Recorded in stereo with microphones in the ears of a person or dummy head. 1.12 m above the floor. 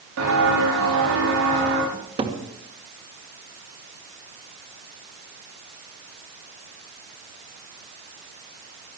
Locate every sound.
0.2 s footsteps: 75° right (ahead or behind), 9.5 m; by 1.8 s 70° right (ahead or behind), 10 m
1.9 s a cupboard door: 25° right (ahead or behind), 2.0 m